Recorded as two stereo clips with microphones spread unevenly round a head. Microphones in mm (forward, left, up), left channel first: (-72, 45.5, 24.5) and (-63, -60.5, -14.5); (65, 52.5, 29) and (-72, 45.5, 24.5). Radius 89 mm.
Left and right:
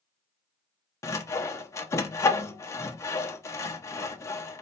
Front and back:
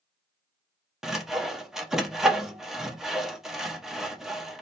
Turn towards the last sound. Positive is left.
turn(degrees=95)